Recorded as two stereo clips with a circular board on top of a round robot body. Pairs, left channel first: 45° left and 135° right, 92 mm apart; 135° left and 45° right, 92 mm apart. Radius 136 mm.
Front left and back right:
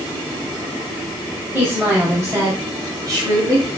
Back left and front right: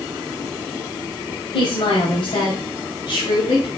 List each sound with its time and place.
1.5 s a woman speaking: 160° left, 3 m; by 3.7 s straight behind, 3.5 m